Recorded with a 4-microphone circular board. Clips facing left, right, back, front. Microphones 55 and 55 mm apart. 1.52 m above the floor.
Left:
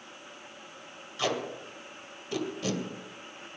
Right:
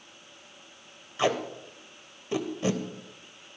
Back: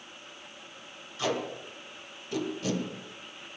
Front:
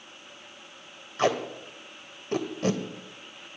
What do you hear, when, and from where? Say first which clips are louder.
1.2 s tape being pulled: right 4 dB, front 5 dB; 30° right, 2 m